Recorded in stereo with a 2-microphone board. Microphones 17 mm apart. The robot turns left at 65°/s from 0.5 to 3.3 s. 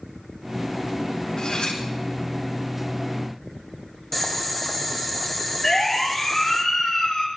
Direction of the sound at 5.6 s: 35° left (ahead or behind).